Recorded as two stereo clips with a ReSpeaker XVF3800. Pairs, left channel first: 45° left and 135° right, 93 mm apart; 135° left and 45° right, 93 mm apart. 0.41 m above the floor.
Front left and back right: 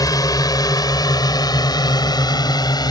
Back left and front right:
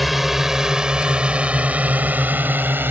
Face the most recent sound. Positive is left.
turn(degrees=20)